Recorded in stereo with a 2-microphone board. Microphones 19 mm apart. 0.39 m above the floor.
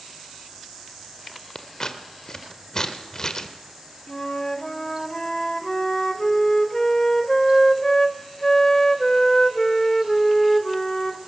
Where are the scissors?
35° left (ahead or behind), 1.6 m.